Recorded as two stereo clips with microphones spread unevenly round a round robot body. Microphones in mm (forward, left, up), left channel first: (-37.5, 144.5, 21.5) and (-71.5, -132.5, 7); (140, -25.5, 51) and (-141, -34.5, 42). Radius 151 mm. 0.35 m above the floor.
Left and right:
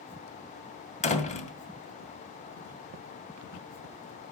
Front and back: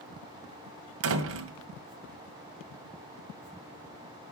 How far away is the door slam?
About 2 m.